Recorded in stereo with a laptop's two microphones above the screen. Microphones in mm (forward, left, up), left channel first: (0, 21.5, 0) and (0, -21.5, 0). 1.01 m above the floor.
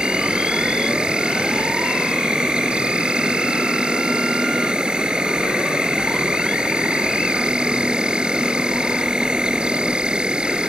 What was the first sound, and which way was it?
An insect, 25° right (ahead or behind).